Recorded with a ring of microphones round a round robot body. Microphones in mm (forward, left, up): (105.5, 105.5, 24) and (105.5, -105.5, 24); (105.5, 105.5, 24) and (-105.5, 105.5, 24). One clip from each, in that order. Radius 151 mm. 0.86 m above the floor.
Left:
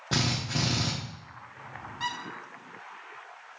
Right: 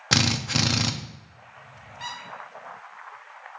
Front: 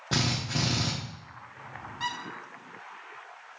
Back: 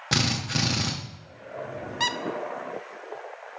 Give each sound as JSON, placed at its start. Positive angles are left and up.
{"t": 0.1, "sound": "a drill", "azimuth_deg": -120, "distance_m": 0.5}
{"t": 2.0, "sound": "a squeak", "azimuth_deg": 175, "distance_m": 0.5}